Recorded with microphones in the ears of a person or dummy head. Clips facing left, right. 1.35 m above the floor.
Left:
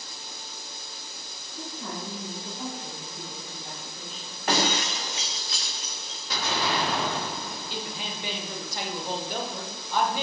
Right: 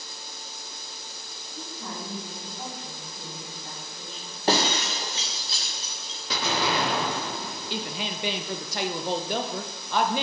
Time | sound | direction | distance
1.5 | a woman speaking | 20° right (ahead or behind) | 3.5 m
4.5 | breaking glass | 25° right (ahead or behind) | 0.6 m
6.3 | an explosion | 60° right (ahead or behind) | 1.2 m
7.7 | a woman speaking | 50° right (ahead or behind) | 0.8 m